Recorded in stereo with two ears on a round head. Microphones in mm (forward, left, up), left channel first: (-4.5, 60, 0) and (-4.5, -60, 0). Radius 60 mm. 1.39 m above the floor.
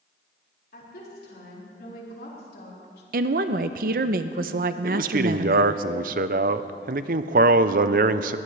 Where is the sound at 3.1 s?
65° right (ahead or behind), 0.7 m.